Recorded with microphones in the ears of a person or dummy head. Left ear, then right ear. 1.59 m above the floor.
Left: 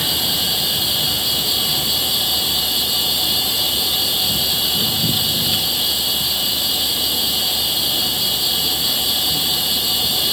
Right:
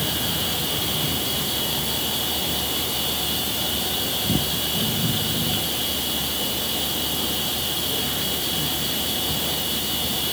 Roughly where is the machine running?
Left.